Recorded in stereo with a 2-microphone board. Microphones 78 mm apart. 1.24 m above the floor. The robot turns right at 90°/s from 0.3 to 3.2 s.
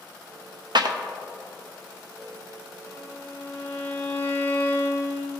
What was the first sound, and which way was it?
A clap, 65° right (ahead or behind).